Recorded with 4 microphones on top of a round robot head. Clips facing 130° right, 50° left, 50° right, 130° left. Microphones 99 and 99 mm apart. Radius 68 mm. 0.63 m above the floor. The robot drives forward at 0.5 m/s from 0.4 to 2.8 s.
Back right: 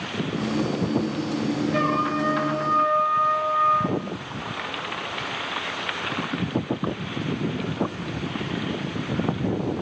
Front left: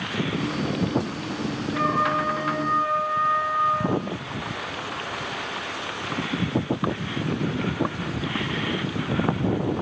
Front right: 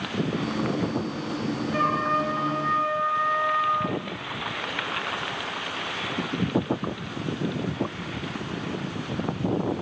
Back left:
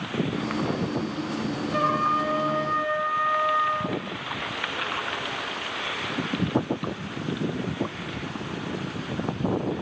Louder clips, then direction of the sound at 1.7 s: Front left 4 dB, back left 1 dB; 150° right.